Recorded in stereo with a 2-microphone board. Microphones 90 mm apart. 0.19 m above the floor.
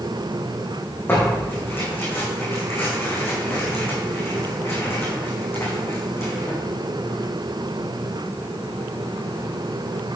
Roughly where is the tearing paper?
Left.